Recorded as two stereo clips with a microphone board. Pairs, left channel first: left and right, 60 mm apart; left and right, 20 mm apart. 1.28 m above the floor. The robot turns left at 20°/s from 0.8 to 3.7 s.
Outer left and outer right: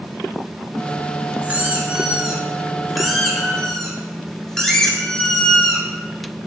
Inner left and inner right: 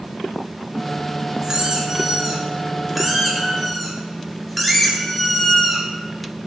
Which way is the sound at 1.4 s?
145° right.